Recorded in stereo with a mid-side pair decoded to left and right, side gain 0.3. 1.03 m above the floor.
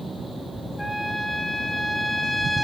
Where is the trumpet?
15° left, 3 m.